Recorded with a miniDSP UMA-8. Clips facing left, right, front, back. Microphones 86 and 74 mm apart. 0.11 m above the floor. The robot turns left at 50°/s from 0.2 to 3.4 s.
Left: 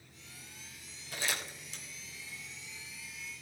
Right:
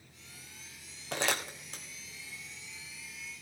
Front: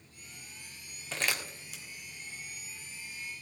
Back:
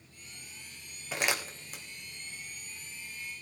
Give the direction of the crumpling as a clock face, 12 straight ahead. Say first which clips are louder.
Right 5 dB, back 2 dB; 3 o'clock.